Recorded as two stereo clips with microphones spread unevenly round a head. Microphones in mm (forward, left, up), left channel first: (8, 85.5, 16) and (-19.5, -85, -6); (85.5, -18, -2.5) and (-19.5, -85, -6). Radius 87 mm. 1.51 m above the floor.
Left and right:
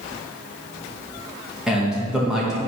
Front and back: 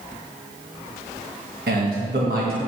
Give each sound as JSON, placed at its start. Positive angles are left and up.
{"t": 1.7, "sound": "a man speaking", "azimuth_deg": 175, "distance_m": 1.9}